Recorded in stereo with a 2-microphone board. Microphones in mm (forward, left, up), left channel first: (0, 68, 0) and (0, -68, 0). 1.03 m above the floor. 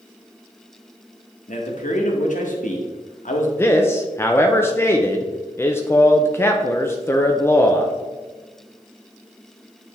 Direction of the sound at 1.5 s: 70° left (ahead or behind).